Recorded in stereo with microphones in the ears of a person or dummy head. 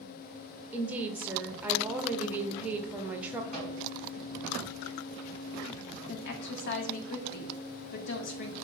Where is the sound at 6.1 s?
55° left (ahead or behind), 0.6 m.